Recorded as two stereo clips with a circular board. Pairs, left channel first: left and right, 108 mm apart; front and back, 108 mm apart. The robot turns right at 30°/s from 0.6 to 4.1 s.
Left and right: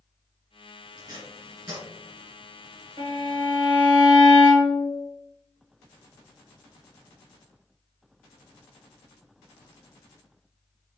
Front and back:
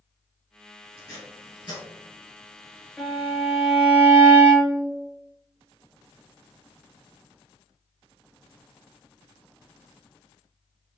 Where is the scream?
I don't hear a scream.